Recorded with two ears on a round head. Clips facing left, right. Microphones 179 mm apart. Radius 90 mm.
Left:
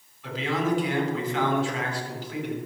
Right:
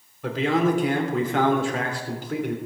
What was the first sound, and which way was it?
A man speaking, 40° right (ahead or behind).